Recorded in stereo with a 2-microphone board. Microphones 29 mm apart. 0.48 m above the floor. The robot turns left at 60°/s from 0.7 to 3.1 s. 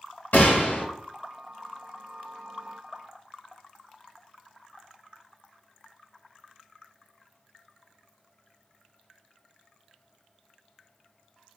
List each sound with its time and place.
0.3 s a gunshot: 80° left, 0.7 m; by 0.8 s 90° left, 0.7 m